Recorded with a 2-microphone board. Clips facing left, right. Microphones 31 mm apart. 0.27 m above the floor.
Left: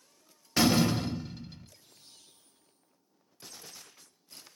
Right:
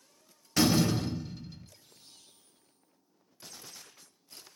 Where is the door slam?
15° left (ahead or behind), 0.6 m.